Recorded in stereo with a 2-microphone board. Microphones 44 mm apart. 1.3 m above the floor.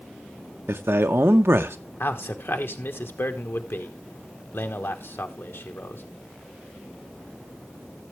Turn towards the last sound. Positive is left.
turn(degrees=65)  # may be behind; listen again after turning